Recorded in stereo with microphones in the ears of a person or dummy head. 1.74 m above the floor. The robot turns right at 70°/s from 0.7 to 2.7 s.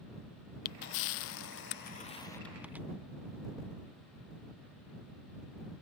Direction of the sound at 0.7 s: 50° left (ahead or behind).